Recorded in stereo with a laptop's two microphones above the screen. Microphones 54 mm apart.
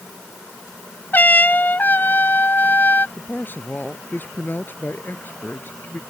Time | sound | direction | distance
1.1 | a trumpet | 35° left (ahead or behind) | ?
3.2 | a man speaking | 40° left (ahead or behind) | ?